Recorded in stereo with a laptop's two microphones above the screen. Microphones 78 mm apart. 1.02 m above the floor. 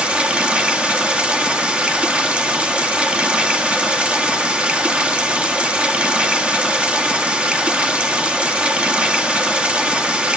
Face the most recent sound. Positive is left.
turn(degrees=-15)  # may be behind; listen again after turning